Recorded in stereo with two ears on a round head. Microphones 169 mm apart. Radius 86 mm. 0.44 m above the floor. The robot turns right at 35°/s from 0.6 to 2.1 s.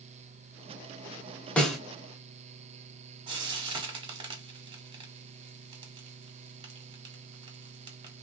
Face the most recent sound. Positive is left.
turn(degrees=-25)  # may be behind; listen again after turning